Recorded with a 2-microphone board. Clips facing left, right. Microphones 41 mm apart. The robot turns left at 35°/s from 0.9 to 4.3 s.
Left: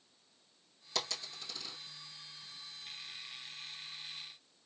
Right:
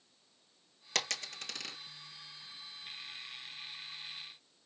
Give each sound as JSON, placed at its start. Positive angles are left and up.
{"t": 0.9, "sound": "a dropped coin", "side_deg": -65, "distance_m": 1.3}